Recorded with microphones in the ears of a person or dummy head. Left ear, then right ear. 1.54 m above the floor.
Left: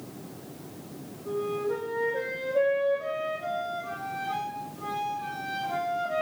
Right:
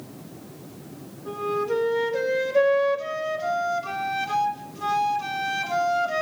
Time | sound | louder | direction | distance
1.2 | a flute | right 4 dB | 55° right (ahead or behind) | 2 m